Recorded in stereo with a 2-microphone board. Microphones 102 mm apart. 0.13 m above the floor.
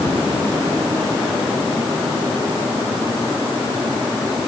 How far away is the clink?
I don't hear a clink.